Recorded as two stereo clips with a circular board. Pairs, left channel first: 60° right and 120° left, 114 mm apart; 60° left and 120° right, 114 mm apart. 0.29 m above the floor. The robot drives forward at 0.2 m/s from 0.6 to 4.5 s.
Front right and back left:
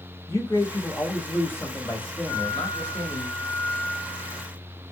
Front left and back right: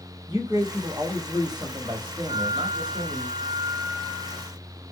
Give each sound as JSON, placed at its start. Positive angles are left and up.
{"t": 0.3, "sound": "a man speaking", "azimuth_deg": -105, "distance_m": 1.5}
{"t": 2.3, "sound": "a flute", "azimuth_deg": -115, "distance_m": 0.9}